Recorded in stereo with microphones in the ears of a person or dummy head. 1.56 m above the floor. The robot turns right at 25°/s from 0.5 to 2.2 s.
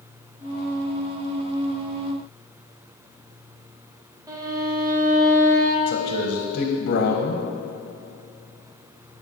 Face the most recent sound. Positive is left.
turn(degrees=55)  # may be behind; listen again after turning